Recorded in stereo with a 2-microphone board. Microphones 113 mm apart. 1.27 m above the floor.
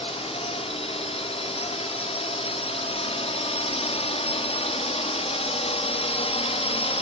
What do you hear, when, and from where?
0.0 s a drone: 60° left (ahead or behind)